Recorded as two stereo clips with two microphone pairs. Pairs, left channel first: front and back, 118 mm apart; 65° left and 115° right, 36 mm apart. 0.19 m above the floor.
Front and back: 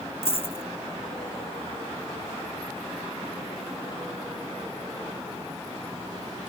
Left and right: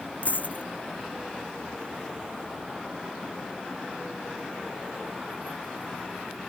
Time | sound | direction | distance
0.2 | a dropped coin | 35° left | ?